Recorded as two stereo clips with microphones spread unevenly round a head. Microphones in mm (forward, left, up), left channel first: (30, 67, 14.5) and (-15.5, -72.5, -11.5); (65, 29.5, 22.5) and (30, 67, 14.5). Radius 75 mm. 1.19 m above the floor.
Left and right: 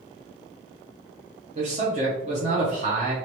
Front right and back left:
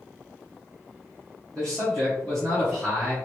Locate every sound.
1.6 s a man speaking: 135° right, 0.9 m